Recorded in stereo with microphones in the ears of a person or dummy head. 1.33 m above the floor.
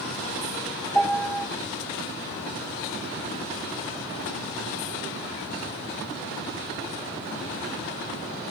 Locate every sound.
0.9 s a piano: 5° left (ahead or behind), 1.6 m